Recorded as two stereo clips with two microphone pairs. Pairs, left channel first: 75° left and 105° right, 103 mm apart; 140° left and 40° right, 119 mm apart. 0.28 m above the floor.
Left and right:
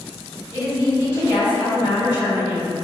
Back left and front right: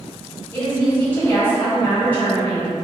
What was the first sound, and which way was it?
A woman speaking, 80° left.